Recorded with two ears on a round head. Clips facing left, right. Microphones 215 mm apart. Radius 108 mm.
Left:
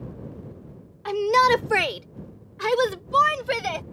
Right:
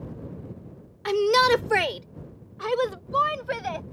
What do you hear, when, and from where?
1.1 s a shout: 30° right (ahead or behind); by 3.8 s 55° left (ahead or behind)